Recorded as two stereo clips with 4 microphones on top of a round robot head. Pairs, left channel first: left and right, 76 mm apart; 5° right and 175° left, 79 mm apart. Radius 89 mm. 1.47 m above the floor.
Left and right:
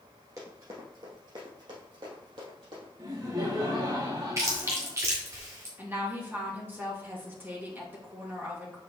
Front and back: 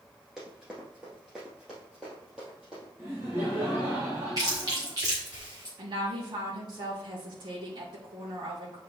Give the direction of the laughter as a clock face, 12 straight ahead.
4 o'clock.